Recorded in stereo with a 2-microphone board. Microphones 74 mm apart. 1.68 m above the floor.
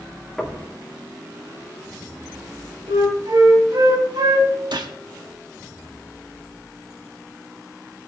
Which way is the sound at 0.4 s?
5° left (ahead or behind).